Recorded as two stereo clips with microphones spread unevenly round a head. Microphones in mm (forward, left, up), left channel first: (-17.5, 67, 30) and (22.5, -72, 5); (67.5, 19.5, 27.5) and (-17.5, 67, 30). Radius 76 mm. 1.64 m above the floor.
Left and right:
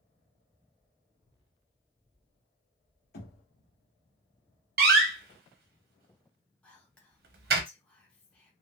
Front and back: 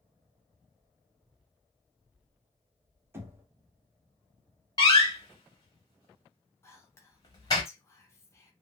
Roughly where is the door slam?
Right.